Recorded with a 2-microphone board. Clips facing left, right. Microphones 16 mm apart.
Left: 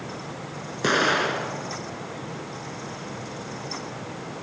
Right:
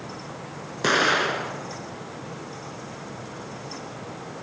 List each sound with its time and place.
0.8 s an explosion: 10° right (ahead or behind), 1.0 m